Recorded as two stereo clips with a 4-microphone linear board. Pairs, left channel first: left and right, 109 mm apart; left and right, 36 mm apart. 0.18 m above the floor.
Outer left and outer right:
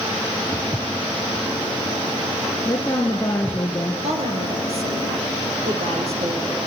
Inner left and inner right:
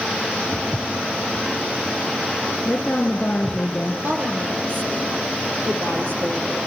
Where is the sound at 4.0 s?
60° right (ahead or behind), 5 m.